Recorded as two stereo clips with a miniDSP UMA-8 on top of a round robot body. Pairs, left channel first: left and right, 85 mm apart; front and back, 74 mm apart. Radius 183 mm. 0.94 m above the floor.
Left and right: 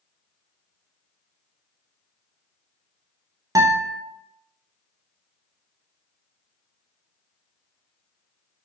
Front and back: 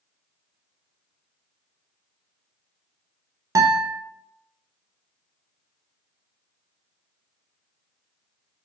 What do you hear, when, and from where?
3.5 s a guitar: 140° right, 0.6 m